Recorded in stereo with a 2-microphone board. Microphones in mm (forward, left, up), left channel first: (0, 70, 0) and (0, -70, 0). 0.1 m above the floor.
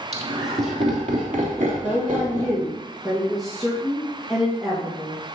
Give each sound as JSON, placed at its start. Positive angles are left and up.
{"t": 0.1, "sound": "laughter", "side_deg": -50, "distance_m": 2.5}
{"t": 1.8, "sound": "a woman speaking", "side_deg": 0, "distance_m": 3.0}